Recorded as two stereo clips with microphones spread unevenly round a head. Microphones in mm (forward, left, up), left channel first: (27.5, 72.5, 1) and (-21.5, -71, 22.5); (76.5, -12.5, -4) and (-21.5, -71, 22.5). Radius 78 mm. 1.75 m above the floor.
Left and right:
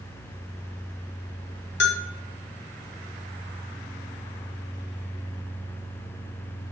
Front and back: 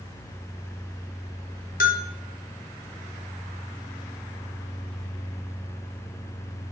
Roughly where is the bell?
Ahead left.